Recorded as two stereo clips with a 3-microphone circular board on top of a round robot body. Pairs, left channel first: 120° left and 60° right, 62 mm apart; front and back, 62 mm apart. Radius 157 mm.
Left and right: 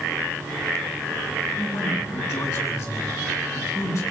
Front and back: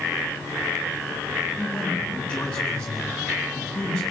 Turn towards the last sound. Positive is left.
turn(degrees=80)